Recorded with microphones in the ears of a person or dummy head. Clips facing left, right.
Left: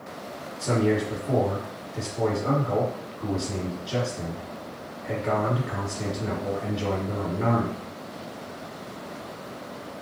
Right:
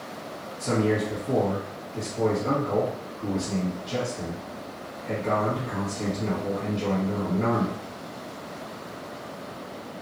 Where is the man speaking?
5° left (ahead or behind), 1.0 m.